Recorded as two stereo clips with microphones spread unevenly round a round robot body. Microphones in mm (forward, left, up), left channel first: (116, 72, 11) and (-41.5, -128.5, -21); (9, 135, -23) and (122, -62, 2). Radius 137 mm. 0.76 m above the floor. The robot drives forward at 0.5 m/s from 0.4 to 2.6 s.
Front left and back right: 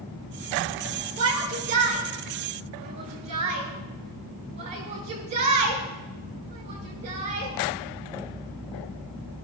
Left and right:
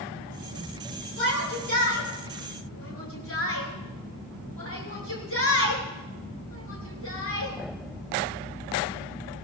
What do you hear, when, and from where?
1.2 s a shout: 160° left, 8 m; by 7.5 s 165° left, 8.5 m